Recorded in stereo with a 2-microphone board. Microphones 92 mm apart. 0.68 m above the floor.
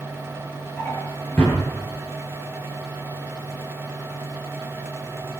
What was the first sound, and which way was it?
A drawer, 25° left (ahead or behind).